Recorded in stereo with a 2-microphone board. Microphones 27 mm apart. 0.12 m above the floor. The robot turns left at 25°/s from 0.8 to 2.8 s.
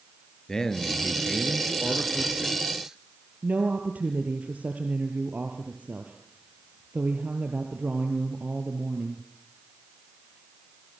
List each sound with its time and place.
0.5 s a man speaking: 30° left, 2.5 m; by 3.0 s 20° right, 2.5 m
3.4 s a woman speaking: 65° right (ahead or behind), 2.5 m